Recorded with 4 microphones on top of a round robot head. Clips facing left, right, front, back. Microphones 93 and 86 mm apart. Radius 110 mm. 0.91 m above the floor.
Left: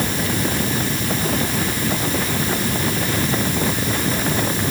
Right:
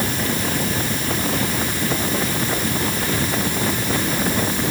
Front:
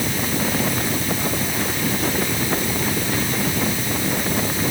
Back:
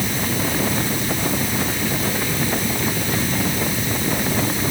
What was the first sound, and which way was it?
Only background noise.